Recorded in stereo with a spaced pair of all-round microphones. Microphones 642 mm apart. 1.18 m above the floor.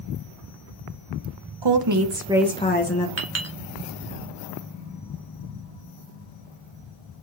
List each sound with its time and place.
1.6 s a woman speaking: 45° right (ahead or behind), 0.6 m; by 3.1 s 30° left (ahead or behind), 0.7 m
3.2 s a clink: 25° right (ahead or behind), 1.0 m